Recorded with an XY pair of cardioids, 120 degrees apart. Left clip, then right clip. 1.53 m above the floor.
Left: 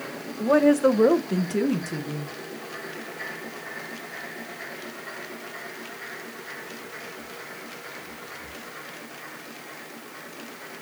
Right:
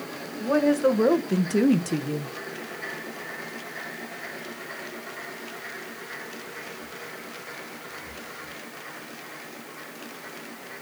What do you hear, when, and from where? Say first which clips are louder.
0.4 s a woman speaking: left 3 dB; 35° left, 1.8 m; by 2.3 s 50° right, 1.7 m